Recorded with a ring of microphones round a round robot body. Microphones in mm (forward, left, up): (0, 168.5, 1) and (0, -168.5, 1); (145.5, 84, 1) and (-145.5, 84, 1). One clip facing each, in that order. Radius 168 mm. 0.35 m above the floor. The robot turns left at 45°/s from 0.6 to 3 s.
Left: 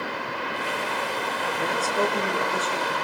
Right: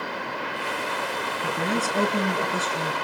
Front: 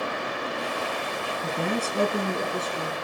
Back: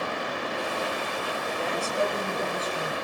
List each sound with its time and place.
1.4 s a woman speaking: 40° right, 5.5 m; by 2.9 s 105° right, 5.5 m